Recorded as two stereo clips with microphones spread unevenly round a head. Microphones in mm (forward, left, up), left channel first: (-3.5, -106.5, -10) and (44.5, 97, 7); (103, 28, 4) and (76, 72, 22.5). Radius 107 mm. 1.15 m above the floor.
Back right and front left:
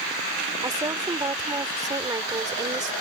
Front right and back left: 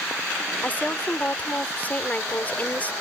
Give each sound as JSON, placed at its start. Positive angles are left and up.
{"t": 0.6, "sound": "a woman speaking", "azimuth_deg": 5}